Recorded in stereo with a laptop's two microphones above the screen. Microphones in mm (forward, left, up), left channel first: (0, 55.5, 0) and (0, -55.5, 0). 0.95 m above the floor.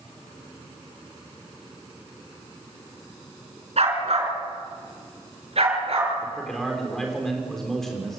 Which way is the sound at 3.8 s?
70° right (ahead or behind).